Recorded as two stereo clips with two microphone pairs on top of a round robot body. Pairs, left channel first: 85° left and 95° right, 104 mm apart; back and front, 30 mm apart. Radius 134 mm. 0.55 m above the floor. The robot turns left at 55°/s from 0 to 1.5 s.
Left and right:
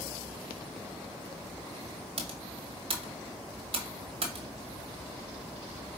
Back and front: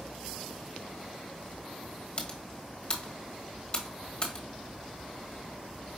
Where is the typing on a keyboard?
120° right, 1.0 m.